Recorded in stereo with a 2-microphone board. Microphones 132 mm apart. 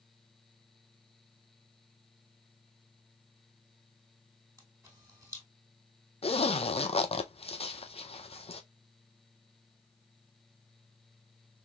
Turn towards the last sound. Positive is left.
turn(degrees=50)  # may be behind; listen again after turning